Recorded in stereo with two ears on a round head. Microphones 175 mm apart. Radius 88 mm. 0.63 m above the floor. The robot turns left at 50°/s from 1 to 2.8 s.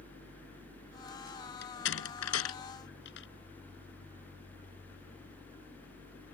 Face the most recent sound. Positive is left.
turn(degrees=60)  # may be behind; listen again after turning